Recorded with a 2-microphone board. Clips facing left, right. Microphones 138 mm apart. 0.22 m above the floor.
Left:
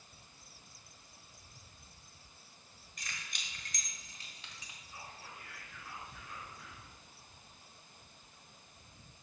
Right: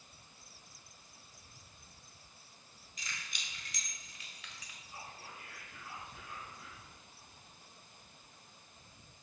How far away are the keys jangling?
About 1.8 m.